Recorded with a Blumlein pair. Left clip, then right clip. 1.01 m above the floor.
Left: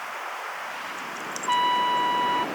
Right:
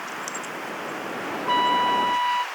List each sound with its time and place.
1.5 s a trumpet: straight ahead